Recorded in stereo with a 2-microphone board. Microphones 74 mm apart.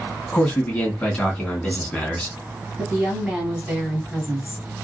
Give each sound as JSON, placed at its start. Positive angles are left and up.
{"t": 0.3, "sound": "a man speaking", "side_deg": 15, "distance_m": 1.0}
{"t": 2.8, "sound": "a woman speaking", "side_deg": -15, "distance_m": 1.6}